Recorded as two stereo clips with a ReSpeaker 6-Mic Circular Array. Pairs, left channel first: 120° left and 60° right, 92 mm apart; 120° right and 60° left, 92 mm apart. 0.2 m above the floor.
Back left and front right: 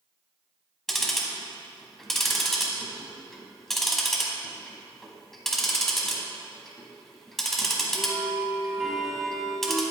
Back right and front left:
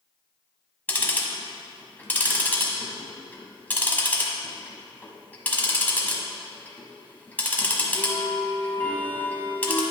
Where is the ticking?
160° right, 1.1 m.